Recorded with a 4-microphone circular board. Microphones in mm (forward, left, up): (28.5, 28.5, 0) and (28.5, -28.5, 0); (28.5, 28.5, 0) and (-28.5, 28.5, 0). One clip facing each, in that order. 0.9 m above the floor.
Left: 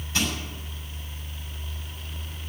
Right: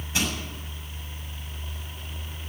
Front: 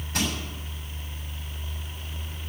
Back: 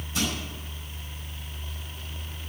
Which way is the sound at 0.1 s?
25° right.